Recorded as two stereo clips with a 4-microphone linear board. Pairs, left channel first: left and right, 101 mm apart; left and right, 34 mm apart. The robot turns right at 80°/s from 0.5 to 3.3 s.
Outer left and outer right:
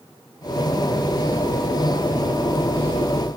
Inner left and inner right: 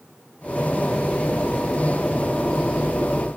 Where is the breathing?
I don't hear breathing.